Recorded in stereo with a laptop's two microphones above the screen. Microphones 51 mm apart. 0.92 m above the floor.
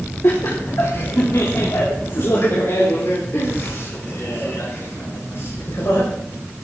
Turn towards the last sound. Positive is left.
turn(degrees=60)  # may be behind; listen again after turning